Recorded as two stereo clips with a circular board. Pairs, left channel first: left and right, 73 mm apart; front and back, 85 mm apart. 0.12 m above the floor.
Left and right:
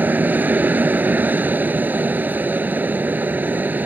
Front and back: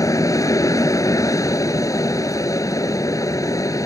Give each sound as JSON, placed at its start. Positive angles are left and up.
{"t": 0.0, "sound": "an aircraft", "azimuth_deg": -30}